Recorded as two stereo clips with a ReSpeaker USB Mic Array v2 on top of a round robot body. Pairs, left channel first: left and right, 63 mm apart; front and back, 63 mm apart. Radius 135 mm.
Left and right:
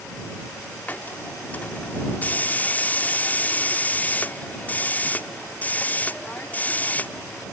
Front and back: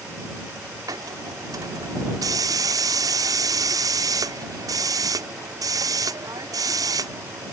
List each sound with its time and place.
0.9 s a hiss: 155° left